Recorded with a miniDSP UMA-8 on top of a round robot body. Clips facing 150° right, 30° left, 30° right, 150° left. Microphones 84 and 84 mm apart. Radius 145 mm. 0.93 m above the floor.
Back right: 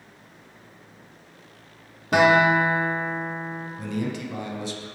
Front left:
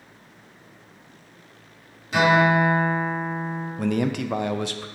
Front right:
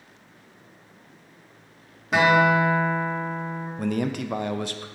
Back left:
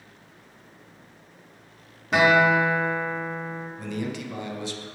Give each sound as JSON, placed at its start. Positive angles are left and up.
{"t": 2.1, "sound": "a guitar", "azimuth_deg": -120, "distance_m": 2.0}
{"t": 3.8, "sound": "a man speaking", "azimuth_deg": 5, "distance_m": 0.5}